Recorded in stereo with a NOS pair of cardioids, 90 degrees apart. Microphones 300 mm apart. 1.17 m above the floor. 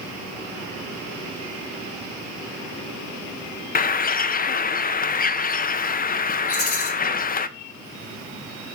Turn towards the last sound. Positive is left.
turn(degrees=50)